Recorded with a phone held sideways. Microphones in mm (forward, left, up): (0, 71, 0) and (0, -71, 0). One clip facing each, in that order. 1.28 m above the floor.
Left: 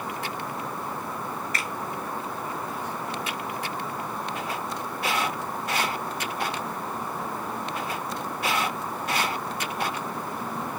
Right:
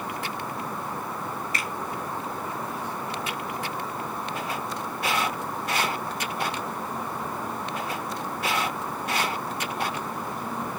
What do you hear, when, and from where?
1.5 s a finger snap: 50° left (ahead or behind), 2.5 m